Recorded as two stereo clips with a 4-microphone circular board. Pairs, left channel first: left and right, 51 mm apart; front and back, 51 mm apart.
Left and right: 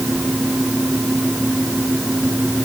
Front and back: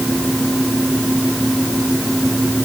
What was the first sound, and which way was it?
Only background noise.